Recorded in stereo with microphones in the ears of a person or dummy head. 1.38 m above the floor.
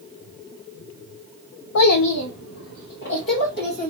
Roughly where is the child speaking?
Left.